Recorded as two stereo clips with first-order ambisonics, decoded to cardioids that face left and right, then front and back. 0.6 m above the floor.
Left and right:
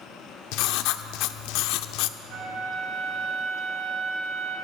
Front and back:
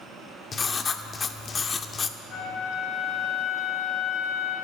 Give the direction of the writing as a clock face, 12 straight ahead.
10 o'clock.